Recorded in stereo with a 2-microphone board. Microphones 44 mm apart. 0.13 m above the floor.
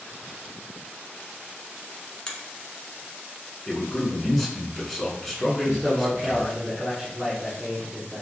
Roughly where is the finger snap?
Left.